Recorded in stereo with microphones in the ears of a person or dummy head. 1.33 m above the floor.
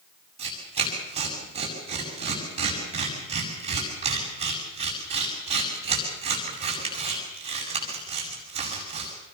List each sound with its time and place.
0.4 s tearing paper: 30° right (ahead or behind), 8 m